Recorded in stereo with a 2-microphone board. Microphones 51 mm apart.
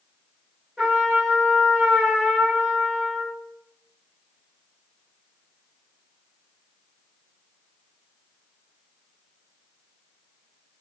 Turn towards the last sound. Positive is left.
turn(degrees=-15)  # may be behind; listen again after turning